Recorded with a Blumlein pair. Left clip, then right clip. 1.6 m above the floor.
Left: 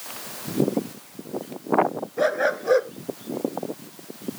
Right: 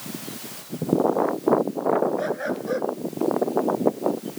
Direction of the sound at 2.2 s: 70° left.